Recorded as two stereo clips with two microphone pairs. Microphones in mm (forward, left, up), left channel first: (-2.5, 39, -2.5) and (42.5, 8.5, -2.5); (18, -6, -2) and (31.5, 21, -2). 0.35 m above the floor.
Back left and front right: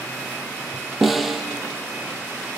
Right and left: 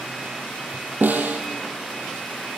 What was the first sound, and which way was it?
A snare drum, 50° left.